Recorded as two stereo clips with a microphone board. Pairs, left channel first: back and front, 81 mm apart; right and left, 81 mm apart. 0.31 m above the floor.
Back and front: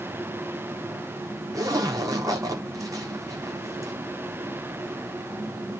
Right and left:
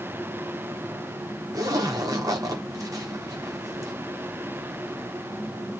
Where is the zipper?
45° left, 7 m.